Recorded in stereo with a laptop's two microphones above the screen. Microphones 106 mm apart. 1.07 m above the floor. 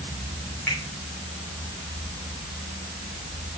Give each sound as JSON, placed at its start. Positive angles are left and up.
{"t": 0.7, "sound": "a finger snap", "side_deg": 20, "distance_m": 3.0}